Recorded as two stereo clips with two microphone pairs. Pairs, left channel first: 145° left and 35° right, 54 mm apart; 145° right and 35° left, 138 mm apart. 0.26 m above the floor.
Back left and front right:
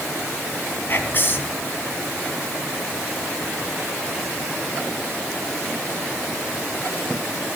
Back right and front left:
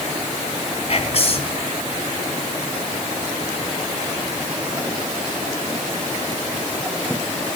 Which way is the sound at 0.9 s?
175° right.